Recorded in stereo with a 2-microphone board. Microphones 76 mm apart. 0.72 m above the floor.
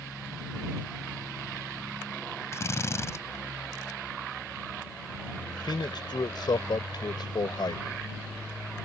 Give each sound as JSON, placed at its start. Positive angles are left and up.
{"t": 2.5, "sound": "a drill", "side_deg": 40}
{"t": 5.5, "sound": "a man speaking", "side_deg": 75}